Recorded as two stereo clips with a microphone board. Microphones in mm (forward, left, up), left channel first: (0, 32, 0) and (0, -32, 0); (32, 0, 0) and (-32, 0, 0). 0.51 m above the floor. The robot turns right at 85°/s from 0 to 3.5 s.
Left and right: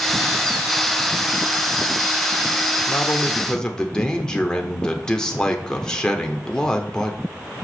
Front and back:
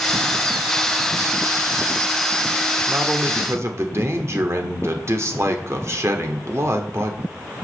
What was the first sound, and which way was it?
A man speaking, 110° left.